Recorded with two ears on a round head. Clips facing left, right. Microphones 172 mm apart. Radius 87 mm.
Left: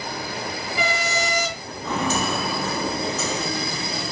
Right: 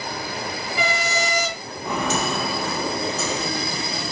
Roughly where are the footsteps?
Centre.